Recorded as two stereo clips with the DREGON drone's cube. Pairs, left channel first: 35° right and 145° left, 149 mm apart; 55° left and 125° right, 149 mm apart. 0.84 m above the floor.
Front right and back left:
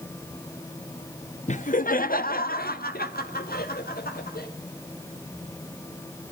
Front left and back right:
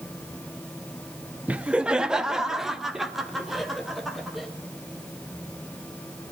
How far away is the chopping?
I don't hear chopping.